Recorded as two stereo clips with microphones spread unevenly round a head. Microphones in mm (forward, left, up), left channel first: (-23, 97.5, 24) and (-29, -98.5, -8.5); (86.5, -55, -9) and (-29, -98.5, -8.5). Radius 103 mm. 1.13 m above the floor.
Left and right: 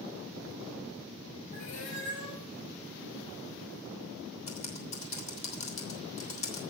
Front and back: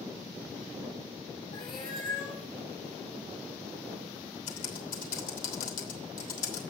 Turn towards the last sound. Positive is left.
turn(degrees=30)